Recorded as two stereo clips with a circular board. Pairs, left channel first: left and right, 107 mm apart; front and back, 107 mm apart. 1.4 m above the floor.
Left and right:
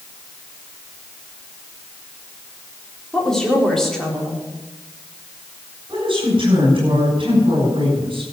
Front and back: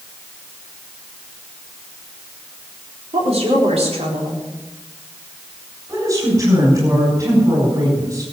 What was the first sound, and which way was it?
A woman speaking, 175° left.